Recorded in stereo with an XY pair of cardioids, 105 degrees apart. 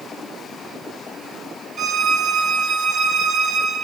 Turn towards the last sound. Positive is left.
turn(degrees=-55)